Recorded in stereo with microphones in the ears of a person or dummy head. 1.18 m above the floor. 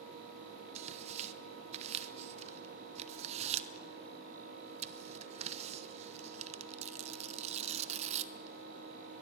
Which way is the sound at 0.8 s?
30° right (ahead or behind).